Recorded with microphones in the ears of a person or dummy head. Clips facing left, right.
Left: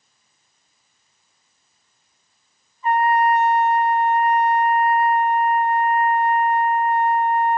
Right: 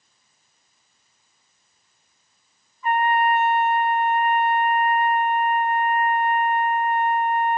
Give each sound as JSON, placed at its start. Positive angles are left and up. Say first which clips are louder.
{"t": 2.8, "sound": "a trumpet", "louder": "left 3 dB", "side_deg": 25}